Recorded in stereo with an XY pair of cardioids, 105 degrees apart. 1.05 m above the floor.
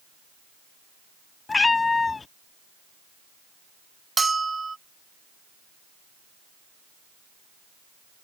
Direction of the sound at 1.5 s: 30° left.